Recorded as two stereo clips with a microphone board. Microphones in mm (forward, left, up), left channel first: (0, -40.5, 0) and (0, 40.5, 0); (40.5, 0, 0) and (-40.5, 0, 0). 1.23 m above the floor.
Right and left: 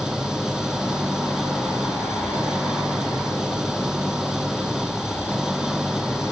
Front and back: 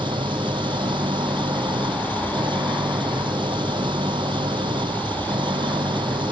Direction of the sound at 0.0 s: 170° left.